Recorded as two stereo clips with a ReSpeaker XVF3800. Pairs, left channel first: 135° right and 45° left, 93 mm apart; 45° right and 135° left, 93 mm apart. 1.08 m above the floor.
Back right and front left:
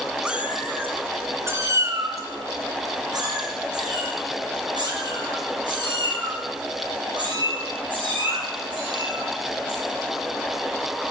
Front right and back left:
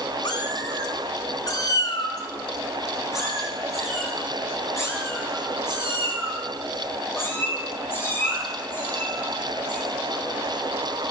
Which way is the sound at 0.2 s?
30° right.